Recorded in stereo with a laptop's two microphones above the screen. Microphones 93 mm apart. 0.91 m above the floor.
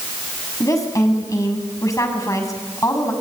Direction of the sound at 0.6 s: 35° left (ahead or behind).